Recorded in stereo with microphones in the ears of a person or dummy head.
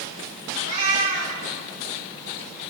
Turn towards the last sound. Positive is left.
turn(degrees=-40)  # may be behind; listen again after turning